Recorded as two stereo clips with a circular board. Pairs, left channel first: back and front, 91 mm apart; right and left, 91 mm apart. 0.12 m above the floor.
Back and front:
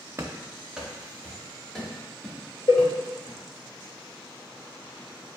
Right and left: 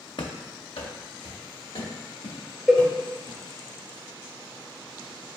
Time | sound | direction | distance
0.2 | running footsteps | 55° right | 0.6 m
2.7 | a cowbell | 175° right | 1.2 m